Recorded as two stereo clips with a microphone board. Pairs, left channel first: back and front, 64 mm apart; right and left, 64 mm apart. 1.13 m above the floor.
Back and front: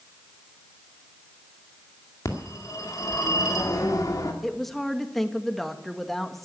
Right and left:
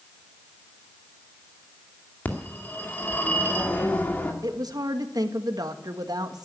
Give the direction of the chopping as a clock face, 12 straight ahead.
I don't hear chopping.